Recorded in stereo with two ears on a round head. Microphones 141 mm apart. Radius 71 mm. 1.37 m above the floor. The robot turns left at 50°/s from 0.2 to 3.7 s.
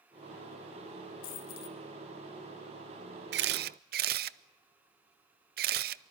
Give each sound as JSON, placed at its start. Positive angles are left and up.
{"t": 1.2, "sound": "a dropped coin", "side_deg": 60, "distance_m": 2.0}
{"t": 3.3, "sound": "a camera shutter", "side_deg": -75, "distance_m": 0.6}